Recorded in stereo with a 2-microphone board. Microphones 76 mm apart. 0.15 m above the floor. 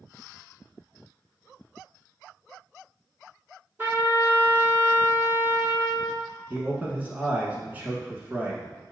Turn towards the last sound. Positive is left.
turn(degrees=-20)  # may be behind; listen again after turning